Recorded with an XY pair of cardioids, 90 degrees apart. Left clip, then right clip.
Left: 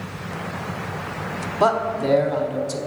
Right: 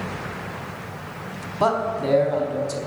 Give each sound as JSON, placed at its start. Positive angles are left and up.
{"t": 1.6, "sound": "a man speaking", "azimuth_deg": 20, "distance_m": 0.9}